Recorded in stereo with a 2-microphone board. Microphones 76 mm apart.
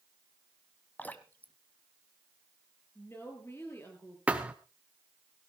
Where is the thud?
15° right (ahead or behind), 1.6 m.